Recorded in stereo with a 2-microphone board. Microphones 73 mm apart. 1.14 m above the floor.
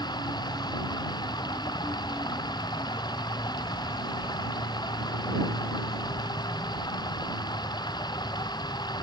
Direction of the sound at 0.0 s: 70° left (ahead or behind).